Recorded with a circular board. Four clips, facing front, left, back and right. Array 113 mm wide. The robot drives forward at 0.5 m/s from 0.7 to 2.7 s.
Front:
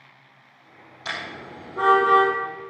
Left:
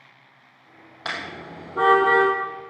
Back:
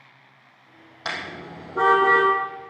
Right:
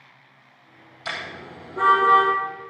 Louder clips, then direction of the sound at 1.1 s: Left 1 dB, back 1 dB; 130° left.